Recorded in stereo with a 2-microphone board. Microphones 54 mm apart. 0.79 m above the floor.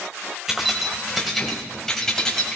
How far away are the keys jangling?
About 2.5 m.